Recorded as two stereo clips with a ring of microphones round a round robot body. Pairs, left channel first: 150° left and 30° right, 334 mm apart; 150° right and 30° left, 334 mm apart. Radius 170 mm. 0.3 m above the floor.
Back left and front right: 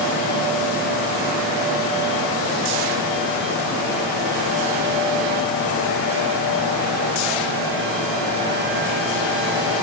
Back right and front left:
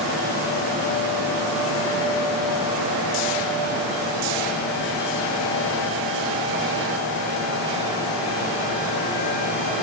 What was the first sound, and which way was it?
Only background noise.